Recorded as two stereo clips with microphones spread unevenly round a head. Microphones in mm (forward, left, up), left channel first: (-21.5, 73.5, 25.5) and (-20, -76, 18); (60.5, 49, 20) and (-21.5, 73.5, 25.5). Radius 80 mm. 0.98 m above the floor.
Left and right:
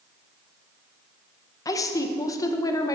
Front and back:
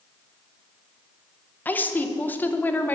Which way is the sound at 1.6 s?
35° left.